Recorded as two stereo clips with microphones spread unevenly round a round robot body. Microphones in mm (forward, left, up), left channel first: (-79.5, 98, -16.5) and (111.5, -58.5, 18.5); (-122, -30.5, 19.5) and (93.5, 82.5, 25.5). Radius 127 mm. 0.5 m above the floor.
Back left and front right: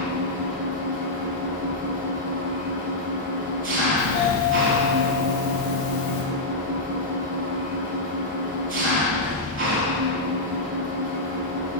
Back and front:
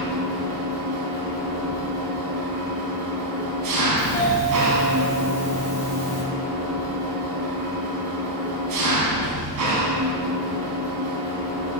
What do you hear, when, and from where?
0.0 s an engine running: 5° left, 2 m
4.0 s a doorbell: 150° left, 3 m